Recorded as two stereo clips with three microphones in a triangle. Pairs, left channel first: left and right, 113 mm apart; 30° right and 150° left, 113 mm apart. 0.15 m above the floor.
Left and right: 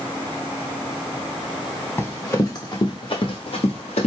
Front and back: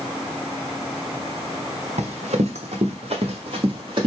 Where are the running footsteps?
160° left, 1.4 m; by 4.1 s 105° left, 1.6 m.